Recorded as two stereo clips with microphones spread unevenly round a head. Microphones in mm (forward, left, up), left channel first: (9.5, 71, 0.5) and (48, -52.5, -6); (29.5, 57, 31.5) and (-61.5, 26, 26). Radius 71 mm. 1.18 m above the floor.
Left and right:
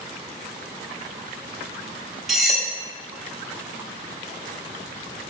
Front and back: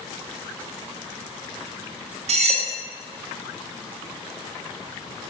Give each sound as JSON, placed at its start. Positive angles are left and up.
{"t": 2.3, "sound": "cutlery clinking", "azimuth_deg": -165, "distance_m": 1.0}